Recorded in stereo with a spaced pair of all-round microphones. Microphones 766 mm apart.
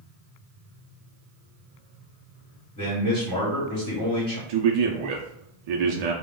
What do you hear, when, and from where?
2.8 s a man speaking: 25° left (ahead or behind), 1.1 m
4.5 s a man speaking: 60° right (ahead or behind), 0.5 m